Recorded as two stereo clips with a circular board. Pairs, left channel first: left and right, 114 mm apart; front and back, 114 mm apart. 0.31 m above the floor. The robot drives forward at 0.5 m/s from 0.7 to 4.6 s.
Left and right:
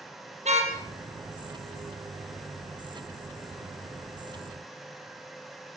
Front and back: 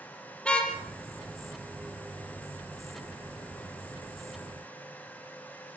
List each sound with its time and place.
0.5 s a car horn: 80° right, 4.5 m